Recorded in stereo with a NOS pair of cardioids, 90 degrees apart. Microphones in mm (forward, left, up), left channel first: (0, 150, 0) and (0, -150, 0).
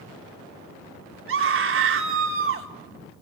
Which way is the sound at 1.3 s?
45° right.